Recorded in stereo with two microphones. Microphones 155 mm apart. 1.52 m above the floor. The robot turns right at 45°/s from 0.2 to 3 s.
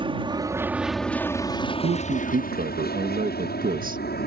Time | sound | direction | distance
0.0 | an aircraft | 30° right (ahead or behind) | ?
1.8 | a man speaking | 110° right | ?